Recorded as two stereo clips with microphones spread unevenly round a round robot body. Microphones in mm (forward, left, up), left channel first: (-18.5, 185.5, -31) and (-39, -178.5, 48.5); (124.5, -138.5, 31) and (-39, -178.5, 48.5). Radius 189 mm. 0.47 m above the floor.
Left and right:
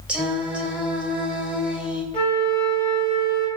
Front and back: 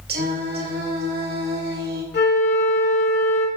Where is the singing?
175° left, 2.5 m.